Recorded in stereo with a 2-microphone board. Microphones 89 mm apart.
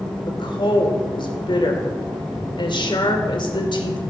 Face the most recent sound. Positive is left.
turn(degrees=65)  # may be behind; listen again after turning